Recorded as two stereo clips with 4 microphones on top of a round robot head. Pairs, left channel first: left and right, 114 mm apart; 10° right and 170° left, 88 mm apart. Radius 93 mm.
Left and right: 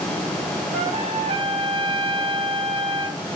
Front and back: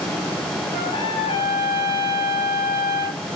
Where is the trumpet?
50° right, 3 m.